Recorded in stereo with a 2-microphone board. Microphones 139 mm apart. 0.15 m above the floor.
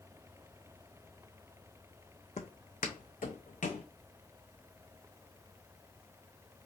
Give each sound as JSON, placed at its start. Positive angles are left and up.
{"t": 2.4, "sound": "footsteps", "side_deg": 55, "distance_m": 0.6}